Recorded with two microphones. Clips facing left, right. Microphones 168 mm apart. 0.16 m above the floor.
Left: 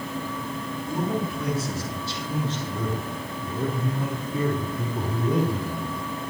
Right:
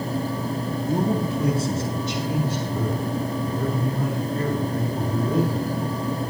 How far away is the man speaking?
About 2.0 m.